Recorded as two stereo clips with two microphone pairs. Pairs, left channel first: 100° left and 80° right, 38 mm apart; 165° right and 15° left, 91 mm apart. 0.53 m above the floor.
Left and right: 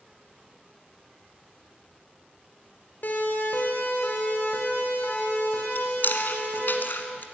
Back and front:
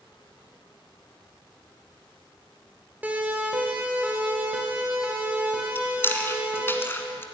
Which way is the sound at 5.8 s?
125° left.